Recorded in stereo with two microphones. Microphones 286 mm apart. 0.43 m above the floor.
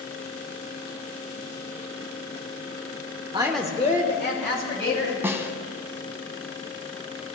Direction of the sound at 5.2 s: 10° right (ahead or behind).